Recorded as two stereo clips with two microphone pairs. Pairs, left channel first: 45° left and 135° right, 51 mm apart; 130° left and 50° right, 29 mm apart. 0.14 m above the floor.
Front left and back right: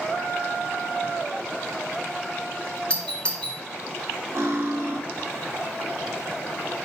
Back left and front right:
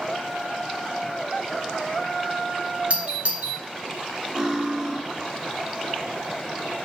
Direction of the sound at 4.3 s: 110° right.